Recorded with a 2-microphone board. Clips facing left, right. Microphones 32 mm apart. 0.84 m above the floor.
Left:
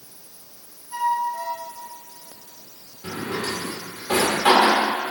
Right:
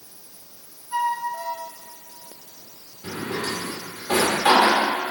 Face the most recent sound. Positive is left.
turn(degrees=40)  # may be behind; listen again after turning